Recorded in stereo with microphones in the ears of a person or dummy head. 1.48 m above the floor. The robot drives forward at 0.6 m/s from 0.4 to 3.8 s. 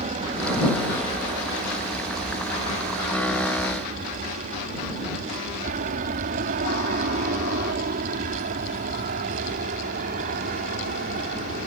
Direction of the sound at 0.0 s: 35° right (ahead or behind).